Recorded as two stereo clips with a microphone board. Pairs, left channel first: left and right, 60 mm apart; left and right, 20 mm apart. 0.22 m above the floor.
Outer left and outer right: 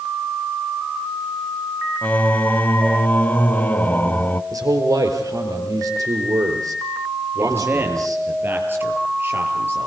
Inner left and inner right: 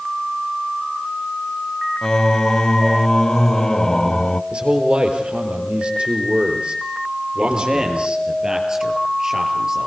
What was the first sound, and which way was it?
Singing, 25° left (ahead or behind).